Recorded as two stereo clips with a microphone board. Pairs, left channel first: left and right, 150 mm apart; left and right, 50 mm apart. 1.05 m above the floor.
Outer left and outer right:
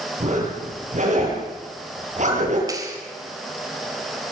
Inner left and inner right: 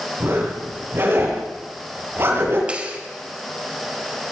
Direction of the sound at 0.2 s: 55° right (ahead or behind).